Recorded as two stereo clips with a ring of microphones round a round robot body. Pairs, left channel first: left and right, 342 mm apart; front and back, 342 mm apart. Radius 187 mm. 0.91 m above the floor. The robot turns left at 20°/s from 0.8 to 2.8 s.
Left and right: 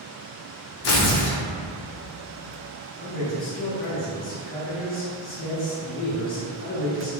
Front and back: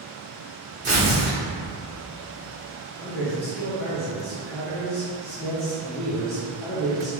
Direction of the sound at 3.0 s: 85° left.